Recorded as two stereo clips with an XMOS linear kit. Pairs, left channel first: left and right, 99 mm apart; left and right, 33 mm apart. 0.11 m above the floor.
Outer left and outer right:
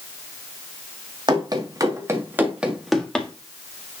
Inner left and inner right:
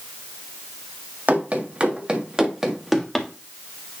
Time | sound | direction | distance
1.3 | running footsteps | 50° right (ahead or behind) | 2 m